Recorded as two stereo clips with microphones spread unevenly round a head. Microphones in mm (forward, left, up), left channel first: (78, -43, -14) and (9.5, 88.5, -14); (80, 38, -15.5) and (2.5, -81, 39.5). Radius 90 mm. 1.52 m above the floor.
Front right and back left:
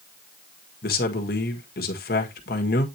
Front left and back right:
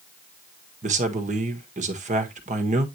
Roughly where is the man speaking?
Right.